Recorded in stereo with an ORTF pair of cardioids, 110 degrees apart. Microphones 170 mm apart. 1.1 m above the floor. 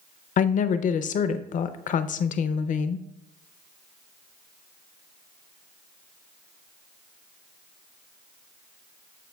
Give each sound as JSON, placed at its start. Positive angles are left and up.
{"t": 0.4, "sound": "a woman speaking", "azimuth_deg": 50, "distance_m": 0.6}